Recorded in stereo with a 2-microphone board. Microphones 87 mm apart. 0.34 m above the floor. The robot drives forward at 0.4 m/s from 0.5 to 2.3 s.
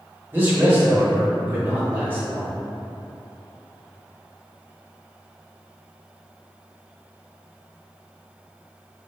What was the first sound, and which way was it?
A man speaking, 20° right (ahead or behind).